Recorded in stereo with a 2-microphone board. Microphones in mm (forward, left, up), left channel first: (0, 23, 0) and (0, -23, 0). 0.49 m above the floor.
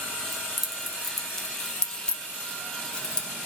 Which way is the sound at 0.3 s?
5° right (ahead or behind).